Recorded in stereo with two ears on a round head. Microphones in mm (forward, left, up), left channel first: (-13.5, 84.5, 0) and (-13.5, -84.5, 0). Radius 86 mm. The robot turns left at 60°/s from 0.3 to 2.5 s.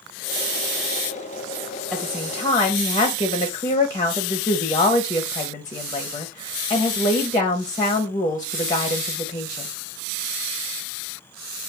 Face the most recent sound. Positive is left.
turn(degrees=150)